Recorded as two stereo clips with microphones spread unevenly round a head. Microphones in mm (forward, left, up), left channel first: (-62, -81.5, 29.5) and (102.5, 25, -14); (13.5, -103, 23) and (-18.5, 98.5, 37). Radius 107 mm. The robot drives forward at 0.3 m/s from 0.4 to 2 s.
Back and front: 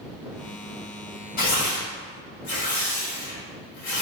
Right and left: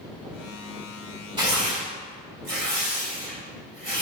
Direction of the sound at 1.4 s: 165° left.